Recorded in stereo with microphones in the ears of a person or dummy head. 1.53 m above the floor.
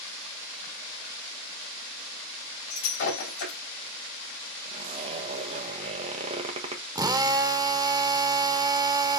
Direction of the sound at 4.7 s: 30° right (ahead or behind).